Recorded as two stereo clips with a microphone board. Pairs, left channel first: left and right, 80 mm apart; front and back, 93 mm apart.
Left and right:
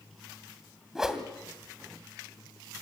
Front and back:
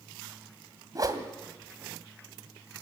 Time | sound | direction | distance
0.9 | a whoosh | 170° right | 1.8 m